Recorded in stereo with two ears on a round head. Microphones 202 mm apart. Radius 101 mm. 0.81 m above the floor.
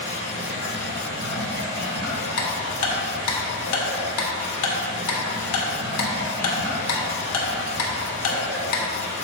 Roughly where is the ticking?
Left.